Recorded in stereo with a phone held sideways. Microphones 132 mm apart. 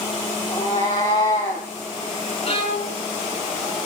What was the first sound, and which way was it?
A cat meowing, 30° left (ahead or behind).